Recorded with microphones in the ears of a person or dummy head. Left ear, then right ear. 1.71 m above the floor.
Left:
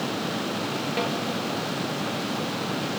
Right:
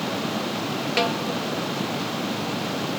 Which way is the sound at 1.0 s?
35° right (ahead or behind).